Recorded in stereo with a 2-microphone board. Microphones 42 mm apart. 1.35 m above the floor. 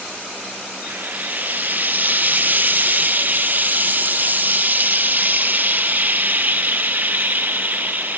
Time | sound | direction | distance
0.9 | frying | 40° right (ahead or behind) | 1.3 m